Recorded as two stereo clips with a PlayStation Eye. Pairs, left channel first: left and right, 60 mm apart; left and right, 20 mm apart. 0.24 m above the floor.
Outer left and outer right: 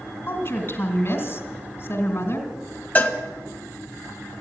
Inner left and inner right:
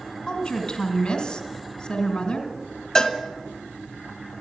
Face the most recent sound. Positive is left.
turn(degrees=30)  # may be behind; listen again after turning